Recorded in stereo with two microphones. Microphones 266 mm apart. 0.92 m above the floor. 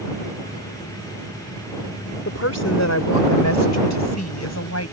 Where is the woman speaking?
60° left (ahead or behind); by 4.9 s 70° left (ahead or behind).